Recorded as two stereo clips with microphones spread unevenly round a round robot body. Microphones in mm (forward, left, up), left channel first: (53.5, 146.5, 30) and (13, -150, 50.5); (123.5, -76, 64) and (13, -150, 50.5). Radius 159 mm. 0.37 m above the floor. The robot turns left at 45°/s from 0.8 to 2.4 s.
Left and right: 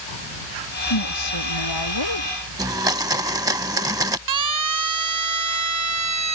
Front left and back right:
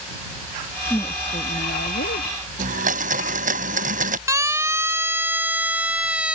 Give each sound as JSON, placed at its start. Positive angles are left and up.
{"t": 0.9, "sound": "a woman speaking", "azimuth_deg": 115}
{"t": 2.6, "sound": "a blender", "azimuth_deg": -175}
{"t": 4.3, "sound": "a siren", "azimuth_deg": -80}